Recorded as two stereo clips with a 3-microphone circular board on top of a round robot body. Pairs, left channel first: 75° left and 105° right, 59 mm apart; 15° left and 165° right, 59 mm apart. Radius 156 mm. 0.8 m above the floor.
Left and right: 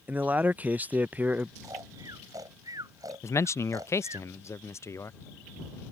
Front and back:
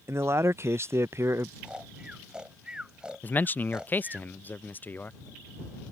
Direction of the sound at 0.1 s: 155° right.